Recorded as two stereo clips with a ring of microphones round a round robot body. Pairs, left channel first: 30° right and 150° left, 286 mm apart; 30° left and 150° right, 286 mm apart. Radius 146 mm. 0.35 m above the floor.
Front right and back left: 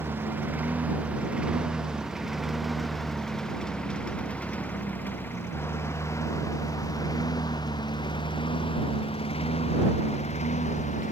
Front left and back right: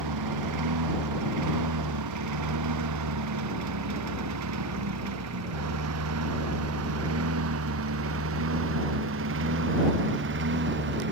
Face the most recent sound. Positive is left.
turn(degrees=-95)